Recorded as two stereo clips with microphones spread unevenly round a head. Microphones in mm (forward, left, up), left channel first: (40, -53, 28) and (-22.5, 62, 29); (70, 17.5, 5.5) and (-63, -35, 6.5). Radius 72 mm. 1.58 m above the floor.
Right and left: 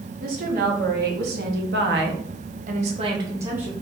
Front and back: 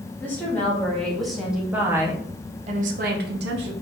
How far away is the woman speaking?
About 1.6 m.